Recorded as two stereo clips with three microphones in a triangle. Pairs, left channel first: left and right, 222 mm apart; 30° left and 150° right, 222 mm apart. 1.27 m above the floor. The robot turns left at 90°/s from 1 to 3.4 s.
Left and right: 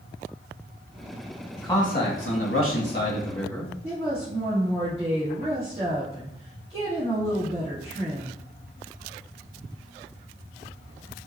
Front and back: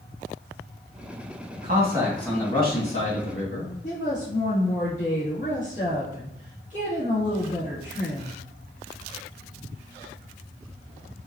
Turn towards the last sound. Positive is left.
turn(degrees=-25)